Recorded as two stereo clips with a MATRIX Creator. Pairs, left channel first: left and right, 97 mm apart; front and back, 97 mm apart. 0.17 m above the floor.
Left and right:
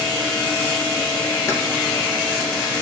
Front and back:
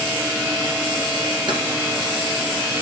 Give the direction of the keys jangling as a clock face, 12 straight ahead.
7 o'clock.